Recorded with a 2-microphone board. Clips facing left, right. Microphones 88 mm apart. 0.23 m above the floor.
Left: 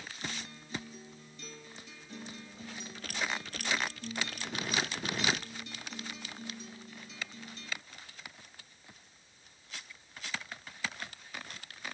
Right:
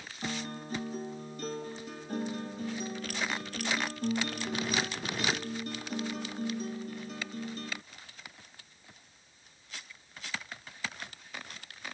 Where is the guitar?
50° right (ahead or behind).